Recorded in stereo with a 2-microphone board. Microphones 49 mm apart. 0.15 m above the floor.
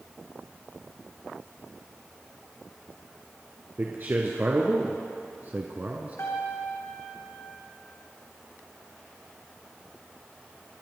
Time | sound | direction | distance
3.8 | a man speaking | 45° right (ahead or behind) | 1.9 m
6.2 | a piano | 75° left (ahead or behind) | 3.5 m